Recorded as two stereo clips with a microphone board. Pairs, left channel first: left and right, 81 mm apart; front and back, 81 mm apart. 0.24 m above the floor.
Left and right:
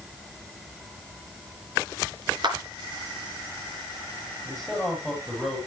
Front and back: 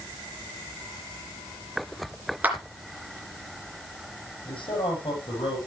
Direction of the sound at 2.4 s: 110° right.